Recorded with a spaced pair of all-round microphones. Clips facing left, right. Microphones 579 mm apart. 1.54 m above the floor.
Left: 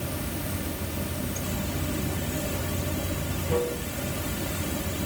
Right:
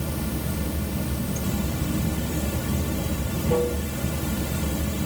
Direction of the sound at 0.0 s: 65° right (ahead or behind).